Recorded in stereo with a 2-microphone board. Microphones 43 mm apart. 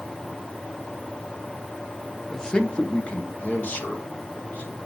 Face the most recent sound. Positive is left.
turn(degrees=35)  # may be behind; listen again after turning